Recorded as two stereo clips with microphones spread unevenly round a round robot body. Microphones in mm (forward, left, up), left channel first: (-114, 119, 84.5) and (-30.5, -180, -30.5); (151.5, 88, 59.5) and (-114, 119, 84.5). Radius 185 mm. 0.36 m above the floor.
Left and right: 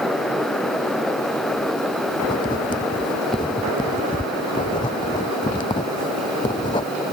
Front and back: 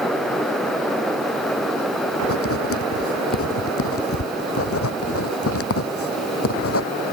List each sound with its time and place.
2.2 s writing: 30° left